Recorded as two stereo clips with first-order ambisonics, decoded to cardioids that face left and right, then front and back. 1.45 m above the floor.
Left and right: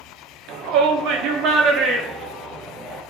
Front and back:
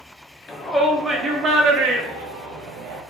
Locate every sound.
0.5 s a shout: 80° right, 0.8 m; by 3.0 s 175° right, 1.1 m